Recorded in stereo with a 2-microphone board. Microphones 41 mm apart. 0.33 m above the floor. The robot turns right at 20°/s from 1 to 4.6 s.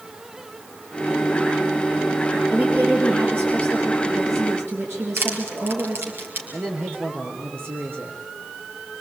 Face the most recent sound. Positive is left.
turn(degrees=-60)  # may be behind; listen again after turning